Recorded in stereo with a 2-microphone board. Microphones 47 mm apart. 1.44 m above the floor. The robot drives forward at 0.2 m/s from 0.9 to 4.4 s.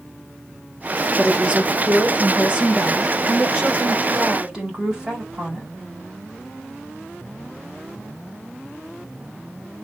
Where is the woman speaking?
25° right (ahead or behind), 1.1 m; by 5.7 s 15° right (ahead or behind), 1.7 m.